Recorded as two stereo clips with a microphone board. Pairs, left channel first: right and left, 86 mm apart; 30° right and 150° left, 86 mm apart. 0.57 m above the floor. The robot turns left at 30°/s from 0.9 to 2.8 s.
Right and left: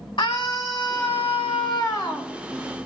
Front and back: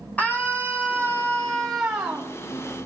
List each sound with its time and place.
0.2 s a scream: 100° right, 4 m; by 2.3 s 145° right, 4 m